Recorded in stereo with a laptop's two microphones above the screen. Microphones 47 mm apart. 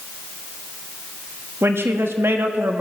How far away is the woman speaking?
About 1.5 m.